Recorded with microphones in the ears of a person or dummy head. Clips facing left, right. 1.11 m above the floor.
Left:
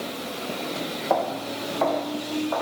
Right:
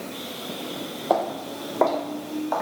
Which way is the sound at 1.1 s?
40° right (ahead or behind).